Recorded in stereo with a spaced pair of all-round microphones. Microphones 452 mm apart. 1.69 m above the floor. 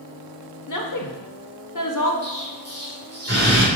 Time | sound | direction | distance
0.7 | a woman speaking | 45° left (ahead or behind) | 0.7 m
2.2 | an explosion | 35° right (ahead or behind) | 1.7 m